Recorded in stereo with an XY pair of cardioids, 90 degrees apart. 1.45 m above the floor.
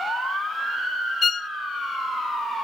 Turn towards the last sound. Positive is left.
turn(degrees=45)